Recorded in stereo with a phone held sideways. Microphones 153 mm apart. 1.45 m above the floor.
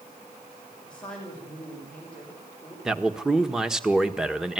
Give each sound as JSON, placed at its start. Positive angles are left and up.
{"t": 0.9, "sound": "a man speaking", "side_deg": 5, "distance_m": 7.0}
{"t": 2.9, "sound": "a man speaking", "side_deg": -5, "distance_m": 1.4}